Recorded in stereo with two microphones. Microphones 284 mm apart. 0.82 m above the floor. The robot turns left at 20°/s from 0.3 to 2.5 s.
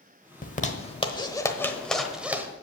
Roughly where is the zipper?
Left.